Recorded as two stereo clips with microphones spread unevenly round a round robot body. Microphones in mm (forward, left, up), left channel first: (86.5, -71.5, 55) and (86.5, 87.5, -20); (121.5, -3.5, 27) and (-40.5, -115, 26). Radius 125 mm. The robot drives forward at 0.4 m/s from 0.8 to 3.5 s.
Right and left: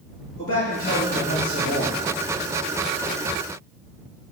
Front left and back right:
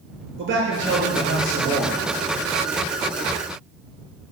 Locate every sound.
0.4 s a man speaking: 130° right, 6.5 m